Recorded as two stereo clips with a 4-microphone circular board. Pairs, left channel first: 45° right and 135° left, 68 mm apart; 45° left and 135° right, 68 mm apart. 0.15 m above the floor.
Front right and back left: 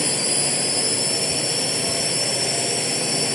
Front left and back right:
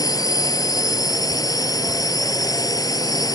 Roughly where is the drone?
Ahead left.